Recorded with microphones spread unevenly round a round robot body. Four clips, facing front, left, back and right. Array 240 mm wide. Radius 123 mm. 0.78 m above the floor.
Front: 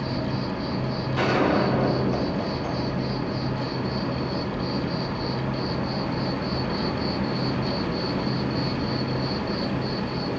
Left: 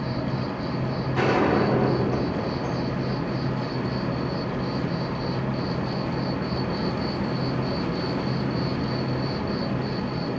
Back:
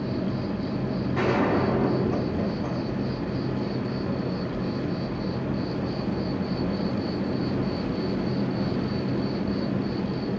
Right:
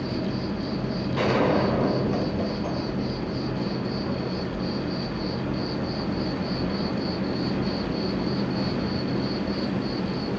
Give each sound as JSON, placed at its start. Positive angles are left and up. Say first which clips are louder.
{"t": 0.0, "sound": "an insect", "louder": "even, even", "azimuth_deg": 50, "distance_m": 2.0}
{"t": 1.1, "sound": "a gunshot", "louder": "left 1 dB, front 2 dB", "azimuth_deg": 130, "distance_m": 5.5}